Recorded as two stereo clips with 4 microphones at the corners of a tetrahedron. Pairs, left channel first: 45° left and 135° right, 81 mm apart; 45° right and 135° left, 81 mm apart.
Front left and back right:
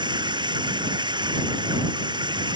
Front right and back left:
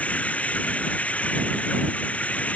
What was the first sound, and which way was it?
Running water, 120° right.